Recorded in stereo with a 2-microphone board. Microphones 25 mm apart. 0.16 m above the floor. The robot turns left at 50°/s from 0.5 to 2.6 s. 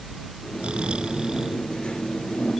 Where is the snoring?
100° right; by 1.6 s 155° right.